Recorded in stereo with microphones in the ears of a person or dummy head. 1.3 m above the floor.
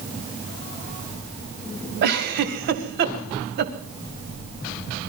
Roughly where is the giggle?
Right.